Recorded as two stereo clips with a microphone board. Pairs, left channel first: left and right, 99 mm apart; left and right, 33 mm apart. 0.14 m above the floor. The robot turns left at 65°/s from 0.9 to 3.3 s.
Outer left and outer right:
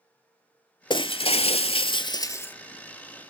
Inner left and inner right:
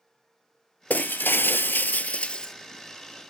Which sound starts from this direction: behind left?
Breaking glass, at 0.9 s.